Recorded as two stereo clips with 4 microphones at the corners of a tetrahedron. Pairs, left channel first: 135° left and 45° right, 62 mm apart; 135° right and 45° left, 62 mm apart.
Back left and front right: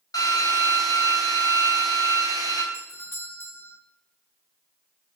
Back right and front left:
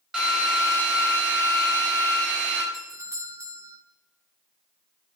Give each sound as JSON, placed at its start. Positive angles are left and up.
{"t": 0.1, "sound": "a drill", "azimuth_deg": 125, "distance_m": 5.0}
{"t": 2.7, "sound": "a doorbell", "azimuth_deg": 85, "distance_m": 1.6}